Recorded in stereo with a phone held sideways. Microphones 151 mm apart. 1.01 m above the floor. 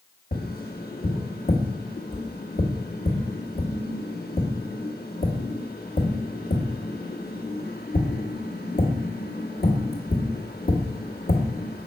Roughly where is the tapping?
Left.